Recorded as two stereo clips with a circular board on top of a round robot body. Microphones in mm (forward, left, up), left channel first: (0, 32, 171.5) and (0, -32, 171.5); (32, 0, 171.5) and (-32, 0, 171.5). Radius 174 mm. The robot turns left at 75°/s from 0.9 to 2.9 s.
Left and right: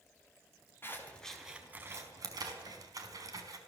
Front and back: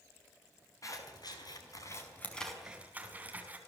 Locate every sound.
0.8 s scissors: 35° left, 4.5 m; by 3.6 s 115° right, 4.5 m